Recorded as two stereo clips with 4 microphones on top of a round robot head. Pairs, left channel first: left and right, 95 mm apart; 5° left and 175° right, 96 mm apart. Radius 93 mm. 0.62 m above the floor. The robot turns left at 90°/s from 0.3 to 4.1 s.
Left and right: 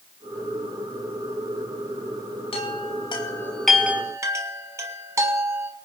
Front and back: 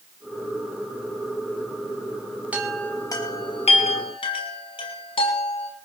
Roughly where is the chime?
Left.